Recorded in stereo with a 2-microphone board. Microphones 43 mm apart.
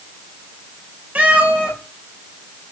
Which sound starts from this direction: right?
A cat meowing, at 1.1 s.